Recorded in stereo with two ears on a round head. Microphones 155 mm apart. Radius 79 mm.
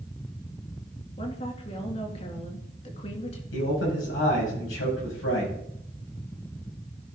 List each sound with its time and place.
1.2 s a woman speaking: 35° left (ahead or behind), 2.5 m
3.5 s a man speaking: 90° left, 6 m